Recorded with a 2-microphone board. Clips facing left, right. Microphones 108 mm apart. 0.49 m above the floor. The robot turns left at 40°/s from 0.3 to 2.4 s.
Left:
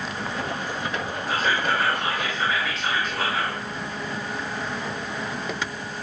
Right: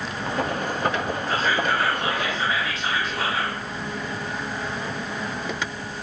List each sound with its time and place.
1.3 s whispering: 10° left (ahead or behind), 0.7 m; by 3.6 s centre (ahead or behind), 0.7 m